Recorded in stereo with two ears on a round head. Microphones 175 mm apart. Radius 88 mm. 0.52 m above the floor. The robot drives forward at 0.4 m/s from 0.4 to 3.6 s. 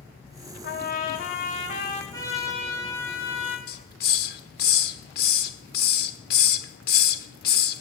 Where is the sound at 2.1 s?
15° left (ahead or behind), 2 m.